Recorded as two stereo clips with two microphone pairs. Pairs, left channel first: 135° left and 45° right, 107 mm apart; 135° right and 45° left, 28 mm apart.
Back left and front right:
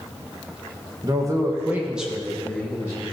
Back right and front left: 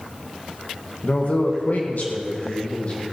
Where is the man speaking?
100° right, 1.7 m; by 3.0 s 165° right, 1.7 m.